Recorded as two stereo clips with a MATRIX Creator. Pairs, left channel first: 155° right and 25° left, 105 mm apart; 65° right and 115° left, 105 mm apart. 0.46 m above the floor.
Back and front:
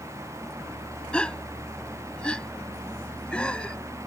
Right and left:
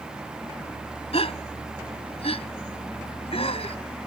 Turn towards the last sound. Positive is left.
turn(degrees=-75)